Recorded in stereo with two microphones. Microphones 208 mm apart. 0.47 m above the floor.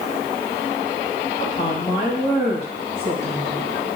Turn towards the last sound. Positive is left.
turn(degrees=35)  # may be behind; listen again after turning